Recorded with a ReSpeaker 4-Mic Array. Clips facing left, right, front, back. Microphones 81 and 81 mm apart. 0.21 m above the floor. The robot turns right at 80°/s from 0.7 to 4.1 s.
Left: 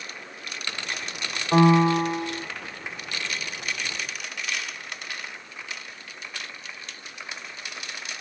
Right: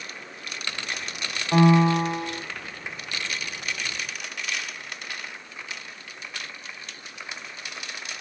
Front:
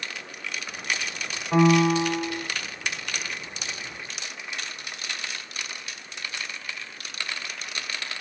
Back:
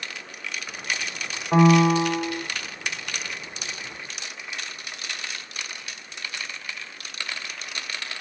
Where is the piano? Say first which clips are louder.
Left 1 dB, back 2 dB; 150° left, 0.9 m; by 2.4 s 140° right, 0.9 m.